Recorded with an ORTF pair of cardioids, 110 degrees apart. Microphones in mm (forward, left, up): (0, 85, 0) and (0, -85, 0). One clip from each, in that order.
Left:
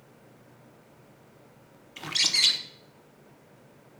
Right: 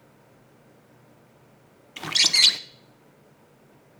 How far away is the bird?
About 0.6 m.